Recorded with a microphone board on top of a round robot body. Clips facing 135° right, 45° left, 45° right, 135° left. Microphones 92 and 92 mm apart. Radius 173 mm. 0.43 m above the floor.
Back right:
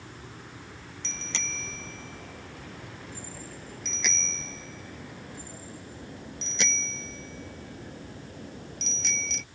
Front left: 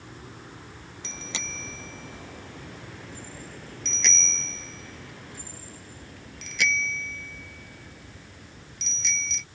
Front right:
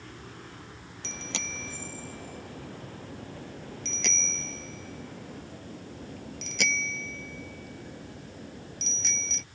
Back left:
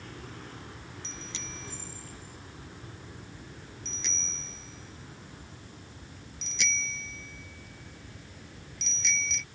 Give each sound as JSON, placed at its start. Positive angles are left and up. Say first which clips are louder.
{"t": 1.0, "sound": "a bicycle bell", "louder": "front left 1 dB, front right 9 dB", "azimuth_deg": -35}